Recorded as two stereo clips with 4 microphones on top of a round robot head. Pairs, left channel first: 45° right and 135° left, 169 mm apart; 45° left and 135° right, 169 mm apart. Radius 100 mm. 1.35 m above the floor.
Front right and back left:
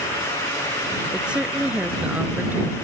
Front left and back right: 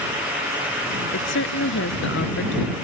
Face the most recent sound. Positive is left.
turn(degrees=55)